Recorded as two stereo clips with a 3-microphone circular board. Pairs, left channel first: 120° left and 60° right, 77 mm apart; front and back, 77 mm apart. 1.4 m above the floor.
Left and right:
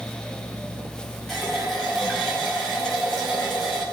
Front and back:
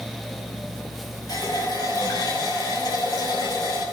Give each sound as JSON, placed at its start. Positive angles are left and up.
{"t": 1.3, "sound": "a running tap", "azimuth_deg": 35, "distance_m": 5.5}